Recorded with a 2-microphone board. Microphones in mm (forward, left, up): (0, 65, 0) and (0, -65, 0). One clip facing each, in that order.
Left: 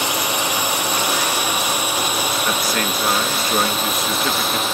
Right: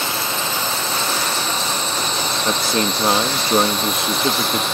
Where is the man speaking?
25° right (ahead or behind).